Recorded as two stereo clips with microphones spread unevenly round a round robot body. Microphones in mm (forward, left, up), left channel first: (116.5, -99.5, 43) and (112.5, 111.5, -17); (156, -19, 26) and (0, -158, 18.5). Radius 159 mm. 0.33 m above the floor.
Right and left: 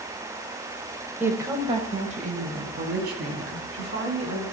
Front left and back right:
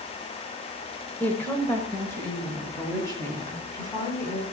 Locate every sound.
1.2 s a woman speaking: 120° left, 1.2 m